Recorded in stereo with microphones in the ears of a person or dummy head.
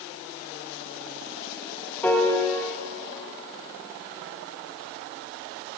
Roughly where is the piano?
Centre.